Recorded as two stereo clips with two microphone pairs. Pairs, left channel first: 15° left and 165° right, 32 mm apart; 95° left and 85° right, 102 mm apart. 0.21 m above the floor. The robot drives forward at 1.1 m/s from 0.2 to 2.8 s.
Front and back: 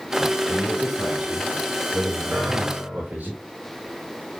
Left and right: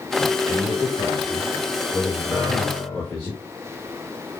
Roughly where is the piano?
Behind.